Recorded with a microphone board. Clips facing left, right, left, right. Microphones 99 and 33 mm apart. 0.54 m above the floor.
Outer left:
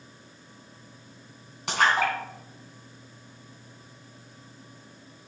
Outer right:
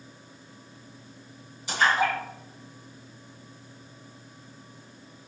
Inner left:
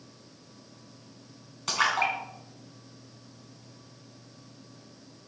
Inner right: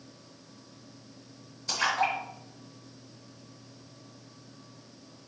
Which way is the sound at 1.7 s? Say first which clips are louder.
Even, inner left 2 dB; 75° left (ahead or behind).